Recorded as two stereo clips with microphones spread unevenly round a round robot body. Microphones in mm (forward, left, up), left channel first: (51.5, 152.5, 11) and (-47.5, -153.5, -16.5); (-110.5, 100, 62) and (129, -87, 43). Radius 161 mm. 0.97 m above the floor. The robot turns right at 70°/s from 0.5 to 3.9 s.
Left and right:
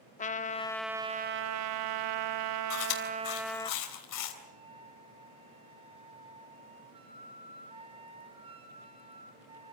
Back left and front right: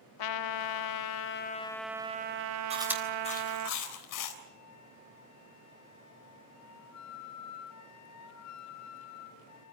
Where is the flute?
Straight behind, 2.0 m.